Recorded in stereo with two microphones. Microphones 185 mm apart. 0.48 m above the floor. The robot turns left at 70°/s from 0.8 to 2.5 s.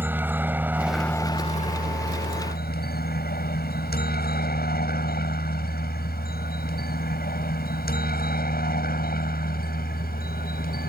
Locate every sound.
0.0 s a helicopter: 10° right (ahead or behind); by 10.9 s 50° left (ahead or behind)